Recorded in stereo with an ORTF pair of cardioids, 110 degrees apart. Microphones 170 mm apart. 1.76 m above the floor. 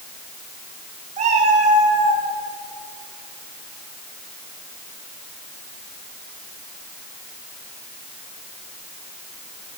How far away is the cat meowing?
About 6.5 m.